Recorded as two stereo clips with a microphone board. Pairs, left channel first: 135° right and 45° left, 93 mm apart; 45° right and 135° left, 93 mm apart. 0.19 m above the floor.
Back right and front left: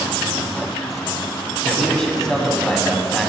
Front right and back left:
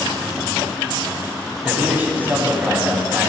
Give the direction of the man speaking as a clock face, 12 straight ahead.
7 o'clock.